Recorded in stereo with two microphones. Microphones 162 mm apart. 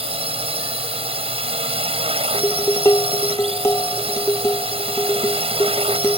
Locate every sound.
0.0 s a drone: 35° right (ahead or behind)
2.3 s dishes clattering: 15° left (ahead or behind)